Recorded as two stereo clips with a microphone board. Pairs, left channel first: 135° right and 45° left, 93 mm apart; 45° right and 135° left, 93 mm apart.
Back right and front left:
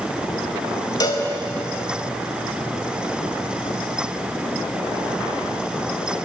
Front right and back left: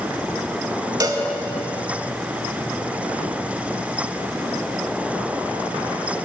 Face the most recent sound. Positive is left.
turn(degrees=180)